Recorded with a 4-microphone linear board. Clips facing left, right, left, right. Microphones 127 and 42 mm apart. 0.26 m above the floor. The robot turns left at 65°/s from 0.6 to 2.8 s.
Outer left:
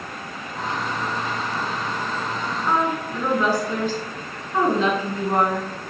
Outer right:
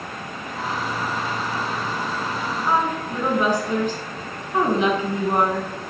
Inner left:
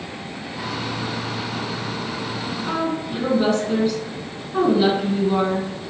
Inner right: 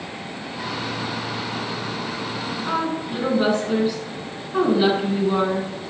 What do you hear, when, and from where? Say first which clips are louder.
2.7 s a woman speaking: even, even; 10° right (ahead or behind), 2.5 m; by 5.7 s 20° right (ahead or behind), 2.5 m